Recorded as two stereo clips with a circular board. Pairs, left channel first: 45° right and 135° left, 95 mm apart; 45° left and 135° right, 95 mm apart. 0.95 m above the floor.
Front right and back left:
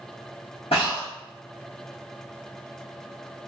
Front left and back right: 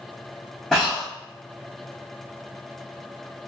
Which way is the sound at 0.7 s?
40° right.